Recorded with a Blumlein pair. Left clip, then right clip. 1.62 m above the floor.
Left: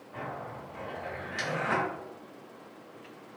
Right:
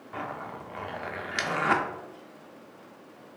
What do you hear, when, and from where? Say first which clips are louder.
0.1 s a zipper: right 3 dB; 30° right, 0.6 m